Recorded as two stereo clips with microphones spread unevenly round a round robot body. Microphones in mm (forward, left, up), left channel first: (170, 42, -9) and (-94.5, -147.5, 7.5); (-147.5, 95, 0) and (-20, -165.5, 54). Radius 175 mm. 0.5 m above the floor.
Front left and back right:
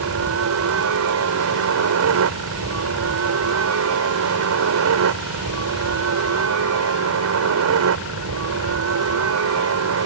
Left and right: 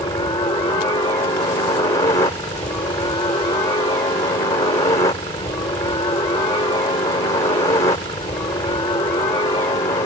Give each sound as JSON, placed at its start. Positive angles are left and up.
{"t": 0.0, "sound": "a helicopter", "azimuth_deg": -175}